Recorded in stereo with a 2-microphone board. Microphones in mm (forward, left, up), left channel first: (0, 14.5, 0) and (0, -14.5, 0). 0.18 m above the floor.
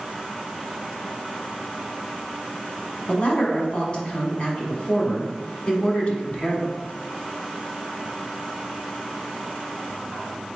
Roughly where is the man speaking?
Left.